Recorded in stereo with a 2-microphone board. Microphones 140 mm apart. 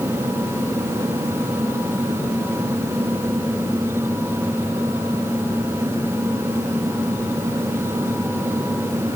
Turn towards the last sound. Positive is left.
No sound to turn to.